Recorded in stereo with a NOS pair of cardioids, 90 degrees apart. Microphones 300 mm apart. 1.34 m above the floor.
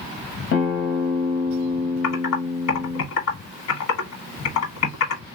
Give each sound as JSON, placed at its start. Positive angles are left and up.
{"t": 0.5, "sound": "a guitar", "azimuth_deg": 60, "distance_m": 1.1}
{"t": 2.0, "sound": "typing on a keyboard", "azimuth_deg": 70, "distance_m": 1.4}